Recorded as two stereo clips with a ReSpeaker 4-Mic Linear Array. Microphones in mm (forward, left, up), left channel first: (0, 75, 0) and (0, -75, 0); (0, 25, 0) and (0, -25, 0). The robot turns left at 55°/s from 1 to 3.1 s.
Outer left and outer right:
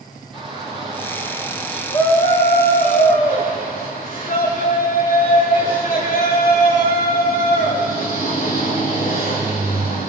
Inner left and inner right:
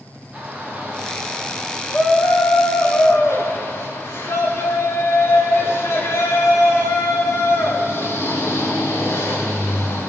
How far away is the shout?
About 7 m.